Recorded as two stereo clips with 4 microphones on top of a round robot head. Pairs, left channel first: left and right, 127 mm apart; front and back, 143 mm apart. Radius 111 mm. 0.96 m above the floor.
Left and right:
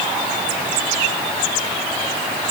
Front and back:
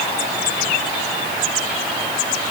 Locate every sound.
Only background noise.